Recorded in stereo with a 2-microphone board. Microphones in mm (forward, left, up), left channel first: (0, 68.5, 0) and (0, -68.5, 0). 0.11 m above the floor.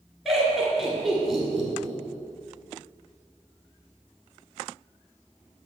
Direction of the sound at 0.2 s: Centre (ahead or behind).